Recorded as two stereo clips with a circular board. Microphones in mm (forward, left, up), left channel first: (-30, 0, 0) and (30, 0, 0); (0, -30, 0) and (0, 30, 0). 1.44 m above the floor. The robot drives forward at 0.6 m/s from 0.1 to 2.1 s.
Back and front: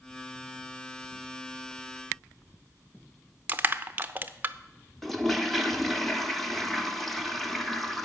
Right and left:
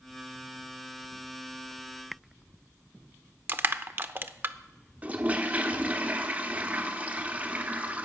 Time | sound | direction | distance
3.5 | crushing | 50° left | 0.6 m
5.0 | a toilet flushing | 95° left | 1.0 m